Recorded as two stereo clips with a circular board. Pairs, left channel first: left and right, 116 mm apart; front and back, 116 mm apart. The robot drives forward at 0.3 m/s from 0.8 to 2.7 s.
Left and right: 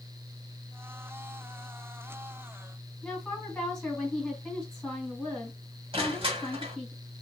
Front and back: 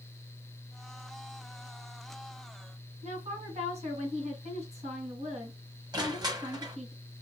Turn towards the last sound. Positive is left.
turn(degrees=-130)